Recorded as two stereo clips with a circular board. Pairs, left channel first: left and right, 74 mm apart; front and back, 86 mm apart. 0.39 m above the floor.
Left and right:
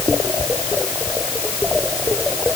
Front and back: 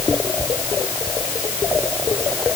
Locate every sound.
Only background noise.